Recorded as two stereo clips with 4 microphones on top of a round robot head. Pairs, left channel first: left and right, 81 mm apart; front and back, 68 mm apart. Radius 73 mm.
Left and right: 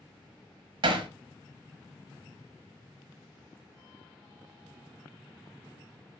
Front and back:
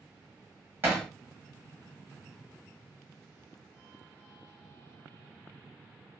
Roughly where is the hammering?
Right.